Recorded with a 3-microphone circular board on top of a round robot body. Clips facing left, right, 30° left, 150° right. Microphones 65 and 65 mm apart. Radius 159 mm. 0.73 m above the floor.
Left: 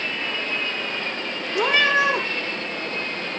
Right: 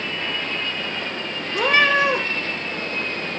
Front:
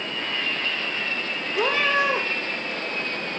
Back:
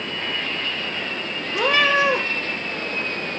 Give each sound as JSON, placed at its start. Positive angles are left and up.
{"t": 1.5, "sound": "a cat meowing", "azimuth_deg": -135, "distance_m": 3.5}